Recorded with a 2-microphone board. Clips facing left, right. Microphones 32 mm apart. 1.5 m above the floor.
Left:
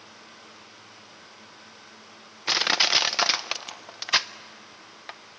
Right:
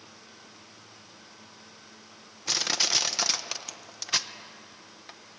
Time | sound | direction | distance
2.5 | crushing | 35° left (ahead or behind) | 0.6 m